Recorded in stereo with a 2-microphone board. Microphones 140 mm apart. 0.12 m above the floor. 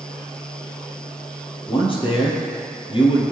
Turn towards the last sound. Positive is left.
turn(degrees=40)  # may be behind; listen again after turning